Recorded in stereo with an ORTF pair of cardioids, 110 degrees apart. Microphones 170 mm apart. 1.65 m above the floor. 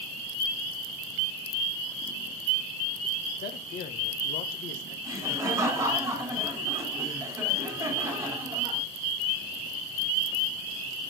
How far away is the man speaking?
About 1.8 m.